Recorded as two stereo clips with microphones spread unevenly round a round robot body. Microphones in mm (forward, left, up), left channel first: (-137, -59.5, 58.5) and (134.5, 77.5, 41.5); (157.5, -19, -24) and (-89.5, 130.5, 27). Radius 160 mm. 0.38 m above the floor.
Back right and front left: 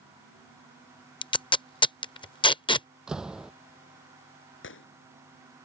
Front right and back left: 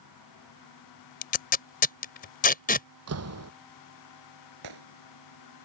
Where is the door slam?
115° left.